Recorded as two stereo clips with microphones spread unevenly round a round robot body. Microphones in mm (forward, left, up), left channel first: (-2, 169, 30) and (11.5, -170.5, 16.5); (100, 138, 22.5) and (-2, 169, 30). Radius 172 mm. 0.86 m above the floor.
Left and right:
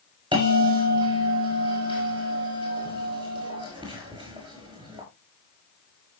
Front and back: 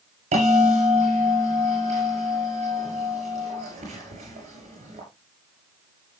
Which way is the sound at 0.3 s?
165° right.